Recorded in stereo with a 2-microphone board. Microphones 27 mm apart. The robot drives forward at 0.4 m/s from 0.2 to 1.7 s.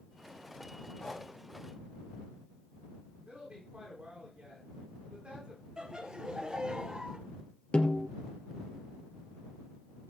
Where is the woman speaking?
40° right (ahead or behind), 9 m.